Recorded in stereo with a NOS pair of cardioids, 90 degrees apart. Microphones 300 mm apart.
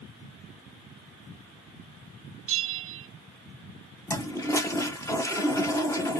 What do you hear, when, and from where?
2.5 s a bell: 45° right, 0.6 m
4.1 s a toilet flushing: 10° left, 1.0 m